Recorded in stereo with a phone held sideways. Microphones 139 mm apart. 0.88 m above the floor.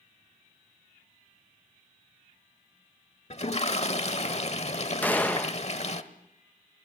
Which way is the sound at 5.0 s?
10° left (ahead or behind).